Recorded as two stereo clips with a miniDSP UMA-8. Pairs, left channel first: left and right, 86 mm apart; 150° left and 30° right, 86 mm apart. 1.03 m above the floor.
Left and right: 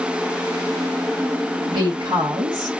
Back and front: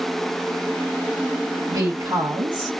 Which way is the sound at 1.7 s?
60° right.